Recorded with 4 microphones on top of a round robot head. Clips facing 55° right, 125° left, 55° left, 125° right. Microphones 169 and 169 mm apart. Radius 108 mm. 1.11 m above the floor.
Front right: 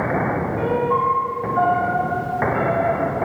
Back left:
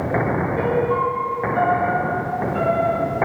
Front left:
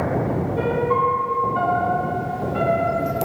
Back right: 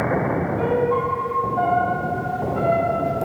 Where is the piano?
70° left, 2 m.